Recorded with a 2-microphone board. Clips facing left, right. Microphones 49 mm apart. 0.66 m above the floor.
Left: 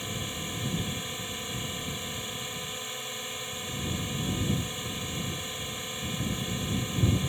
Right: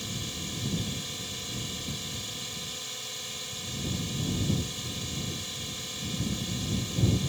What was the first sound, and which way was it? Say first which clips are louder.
A drone: left 2 dB; 20° left (ahead or behind).